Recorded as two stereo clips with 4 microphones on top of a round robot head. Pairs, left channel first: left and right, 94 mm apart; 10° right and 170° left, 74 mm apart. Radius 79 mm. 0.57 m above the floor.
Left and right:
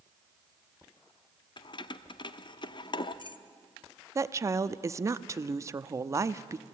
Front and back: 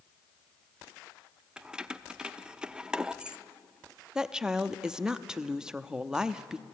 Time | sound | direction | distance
1.6 | keys jangling | 95° left | 0.8 m
4.2 | a woman speaking | 115° right | 0.7 m